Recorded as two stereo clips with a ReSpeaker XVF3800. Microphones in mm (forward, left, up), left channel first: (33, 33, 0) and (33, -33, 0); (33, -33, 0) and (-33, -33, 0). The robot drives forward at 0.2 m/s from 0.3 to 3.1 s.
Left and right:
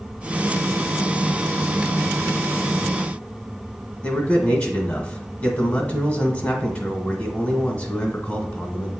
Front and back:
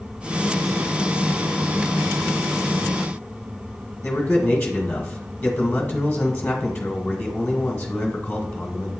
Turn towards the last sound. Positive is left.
turn(degrees=60)